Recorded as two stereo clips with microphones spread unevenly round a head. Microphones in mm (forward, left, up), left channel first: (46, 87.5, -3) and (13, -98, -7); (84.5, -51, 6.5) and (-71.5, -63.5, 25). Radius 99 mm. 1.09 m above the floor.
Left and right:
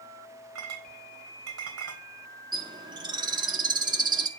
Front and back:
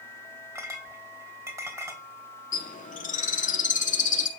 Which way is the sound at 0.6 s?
105° right.